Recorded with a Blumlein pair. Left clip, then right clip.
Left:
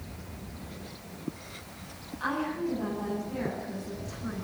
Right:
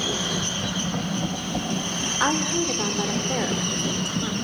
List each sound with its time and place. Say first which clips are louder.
2.2 s a woman speaking: right 6 dB; 50° right, 4 m